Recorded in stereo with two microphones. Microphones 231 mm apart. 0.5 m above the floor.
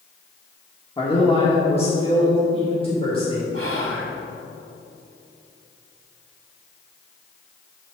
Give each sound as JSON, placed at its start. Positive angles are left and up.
{"t": 1.0, "sound": "a man speaking", "side_deg": 20, "distance_m": 1.1}
{"t": 3.5, "sound": "whispering", "side_deg": -65, "distance_m": 1.5}